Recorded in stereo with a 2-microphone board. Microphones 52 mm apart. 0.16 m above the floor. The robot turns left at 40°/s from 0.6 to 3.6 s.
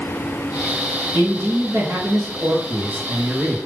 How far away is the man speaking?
About 2.5 m.